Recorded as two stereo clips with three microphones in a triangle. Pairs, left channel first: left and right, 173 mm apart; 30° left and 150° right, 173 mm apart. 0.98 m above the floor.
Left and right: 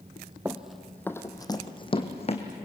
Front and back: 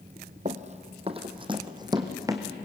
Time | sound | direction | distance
0.5 | running footsteps | 165° right | 1.3 m